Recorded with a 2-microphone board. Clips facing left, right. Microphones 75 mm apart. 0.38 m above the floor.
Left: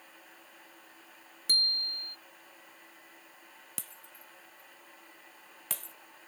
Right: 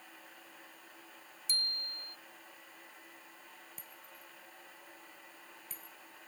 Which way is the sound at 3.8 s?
90° left.